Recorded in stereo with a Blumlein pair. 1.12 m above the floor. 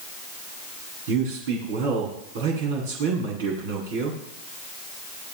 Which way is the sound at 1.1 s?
55° right.